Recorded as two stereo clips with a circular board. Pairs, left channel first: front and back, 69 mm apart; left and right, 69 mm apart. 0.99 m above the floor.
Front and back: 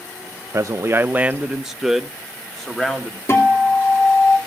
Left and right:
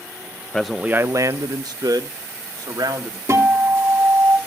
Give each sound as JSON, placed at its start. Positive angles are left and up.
{"t": 0.5, "sound": "a man speaking", "azimuth_deg": 165, "distance_m": 0.5}
{"t": 3.3, "sound": "a guitar", "azimuth_deg": -50, "distance_m": 3.0}